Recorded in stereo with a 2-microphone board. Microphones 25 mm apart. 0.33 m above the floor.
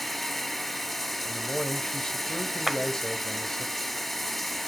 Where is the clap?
20° right (ahead or behind), 1.0 m.